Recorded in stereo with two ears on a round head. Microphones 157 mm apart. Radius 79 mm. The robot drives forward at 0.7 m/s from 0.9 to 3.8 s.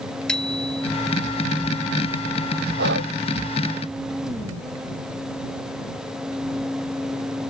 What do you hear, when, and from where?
0.3 s a bicycle bell: 5° left (ahead or behind)
2.8 s breathing: 65° right (ahead or behind)